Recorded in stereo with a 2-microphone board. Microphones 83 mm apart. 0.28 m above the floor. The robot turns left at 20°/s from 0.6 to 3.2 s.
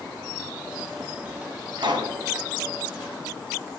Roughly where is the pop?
Right.